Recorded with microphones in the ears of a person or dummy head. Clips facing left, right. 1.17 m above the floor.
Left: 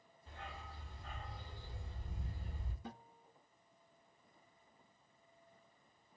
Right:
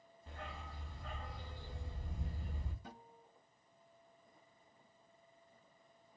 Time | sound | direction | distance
0.3 | a dog barking | 35° right (ahead or behind) | 0.7 m
2.9 | a guitar | 55° left (ahead or behind) | 0.7 m